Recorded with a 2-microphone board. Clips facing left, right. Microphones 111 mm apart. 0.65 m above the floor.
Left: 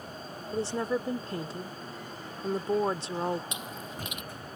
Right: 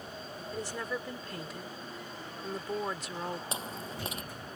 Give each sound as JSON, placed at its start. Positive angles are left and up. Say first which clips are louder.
{"t": 0.5, "sound": "a woman speaking", "louder": "left 8 dB", "side_deg": 30}
{"t": 3.5, "sound": "chewing", "louder": "right 1 dB", "side_deg": -35}